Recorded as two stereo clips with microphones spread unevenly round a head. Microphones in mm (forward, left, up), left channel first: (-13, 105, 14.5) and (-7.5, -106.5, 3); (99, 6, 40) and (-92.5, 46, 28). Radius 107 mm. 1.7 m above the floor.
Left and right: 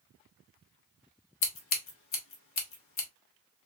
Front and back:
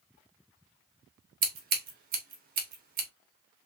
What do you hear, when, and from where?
1.4 s scissors: 120° left, 1.3 m